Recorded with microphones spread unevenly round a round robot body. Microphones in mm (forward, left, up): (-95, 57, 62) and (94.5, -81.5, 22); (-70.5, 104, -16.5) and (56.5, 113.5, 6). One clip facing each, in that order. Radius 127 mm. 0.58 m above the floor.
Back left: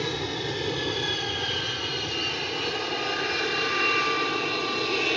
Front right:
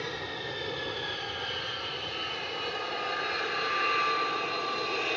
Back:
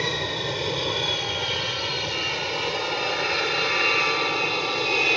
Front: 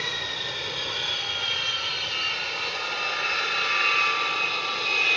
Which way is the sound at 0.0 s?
155° left.